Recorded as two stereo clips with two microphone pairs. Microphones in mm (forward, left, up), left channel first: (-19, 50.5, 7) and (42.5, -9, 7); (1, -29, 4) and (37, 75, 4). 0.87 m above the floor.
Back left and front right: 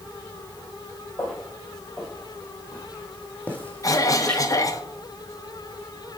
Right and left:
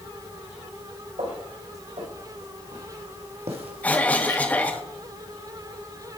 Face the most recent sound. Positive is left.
turn(degrees=175)